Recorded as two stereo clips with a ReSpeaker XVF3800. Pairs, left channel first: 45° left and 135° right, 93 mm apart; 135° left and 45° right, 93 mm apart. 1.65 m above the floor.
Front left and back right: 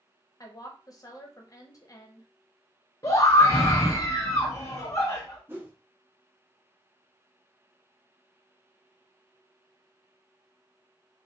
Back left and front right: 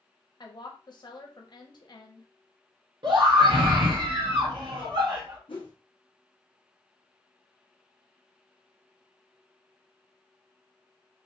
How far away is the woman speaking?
About 0.8 m.